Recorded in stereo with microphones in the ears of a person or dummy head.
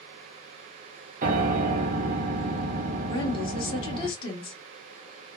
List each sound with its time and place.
1.2 s a piano: 45° right (ahead or behind), 0.6 m
3.1 s a woman speaking: 30° left (ahead or behind), 1.4 m